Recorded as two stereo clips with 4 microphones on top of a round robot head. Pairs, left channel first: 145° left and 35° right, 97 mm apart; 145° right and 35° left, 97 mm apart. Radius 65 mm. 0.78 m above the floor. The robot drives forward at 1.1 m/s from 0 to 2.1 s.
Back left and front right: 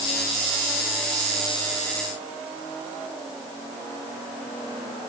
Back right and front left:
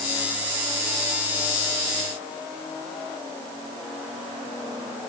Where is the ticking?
No ticking in this recording.